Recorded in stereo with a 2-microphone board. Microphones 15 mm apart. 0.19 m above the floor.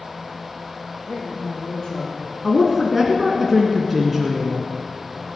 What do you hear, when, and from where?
1.1 s a man speaking: 55° left (ahead or behind), 4.5 m; by 2.3 s 45° left (ahead or behind), 6 m
2.4 s a woman speaking: 10° right (ahead or behind), 1.7 m